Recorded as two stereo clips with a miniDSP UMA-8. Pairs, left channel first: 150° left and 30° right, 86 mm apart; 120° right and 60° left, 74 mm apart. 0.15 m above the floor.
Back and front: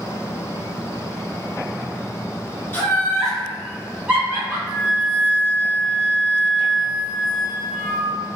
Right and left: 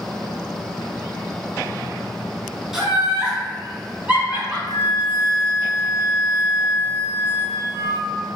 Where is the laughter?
135° left, 1.2 m; by 4.6 s straight ahead, 1.4 m.